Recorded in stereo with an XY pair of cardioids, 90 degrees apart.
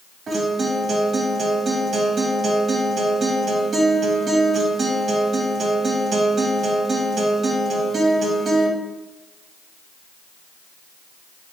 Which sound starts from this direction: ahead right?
A guitar, at 0.3 s.